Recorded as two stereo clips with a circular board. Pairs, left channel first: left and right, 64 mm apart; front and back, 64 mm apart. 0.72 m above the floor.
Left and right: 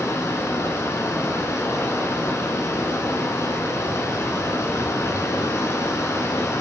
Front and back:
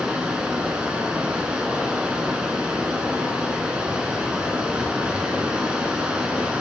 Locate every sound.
0.0 s running water: 110° left, 1.0 m